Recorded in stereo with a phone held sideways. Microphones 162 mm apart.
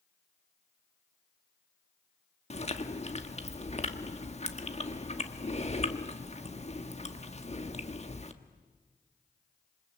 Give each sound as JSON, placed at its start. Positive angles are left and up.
{"t": 2.5, "sound": "chewing", "side_deg": 45, "distance_m": 1.4}